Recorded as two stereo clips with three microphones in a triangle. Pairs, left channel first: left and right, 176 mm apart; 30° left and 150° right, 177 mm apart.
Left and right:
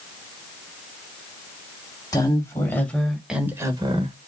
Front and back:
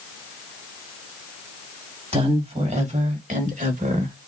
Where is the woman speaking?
160° left, 2.5 m; by 4.2 s 125° right, 1.4 m.